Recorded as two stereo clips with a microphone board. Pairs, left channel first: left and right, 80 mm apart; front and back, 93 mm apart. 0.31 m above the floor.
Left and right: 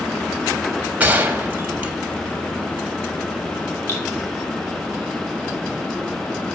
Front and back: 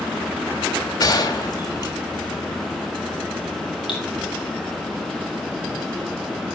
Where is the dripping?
30° left, 3 m.